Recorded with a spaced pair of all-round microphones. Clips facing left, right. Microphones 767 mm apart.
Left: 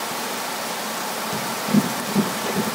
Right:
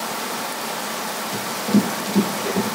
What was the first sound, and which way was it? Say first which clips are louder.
Running footsteps: right 1 dB; 35° left (ahead or behind).